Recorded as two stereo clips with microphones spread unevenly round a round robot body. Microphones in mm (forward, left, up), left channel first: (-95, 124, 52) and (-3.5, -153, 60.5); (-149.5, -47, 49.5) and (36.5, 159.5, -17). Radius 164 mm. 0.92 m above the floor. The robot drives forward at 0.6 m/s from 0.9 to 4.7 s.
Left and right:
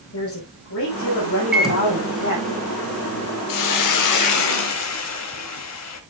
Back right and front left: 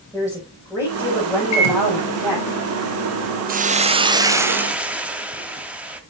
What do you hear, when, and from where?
0.1 s a woman speaking: 145° left, 6 m; by 2.5 s 150° left, 6.5 m
1.5 s a microwave: 160° right, 3 m; by 3.4 s 165° right, 4 m
3.5 s a hiss: 110° left, 1.2 m; by 6.0 s 140° left, 1.6 m